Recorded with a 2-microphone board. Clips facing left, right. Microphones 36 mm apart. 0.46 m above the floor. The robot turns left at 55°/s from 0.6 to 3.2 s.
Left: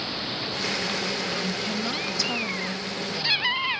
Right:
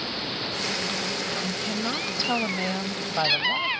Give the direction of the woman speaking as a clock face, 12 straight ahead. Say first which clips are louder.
Even; 12 o'clock.